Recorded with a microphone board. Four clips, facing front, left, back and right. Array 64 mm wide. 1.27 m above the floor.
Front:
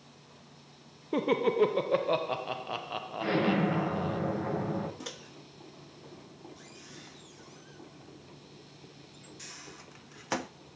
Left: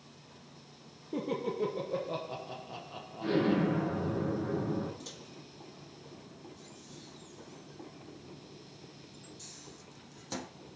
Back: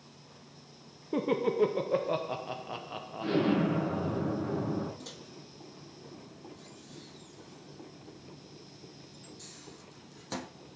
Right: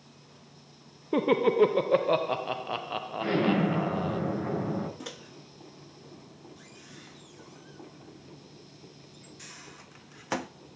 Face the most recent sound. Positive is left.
turn(degrees=-55)